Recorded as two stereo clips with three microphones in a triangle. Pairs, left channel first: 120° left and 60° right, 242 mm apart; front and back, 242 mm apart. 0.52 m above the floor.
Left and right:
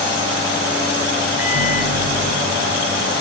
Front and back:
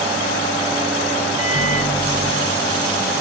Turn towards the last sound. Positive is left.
turn(degrees=-60)